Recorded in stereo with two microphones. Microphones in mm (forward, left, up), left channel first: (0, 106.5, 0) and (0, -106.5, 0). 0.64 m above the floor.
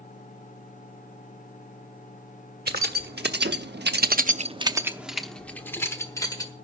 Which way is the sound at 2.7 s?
50° right (ahead or behind).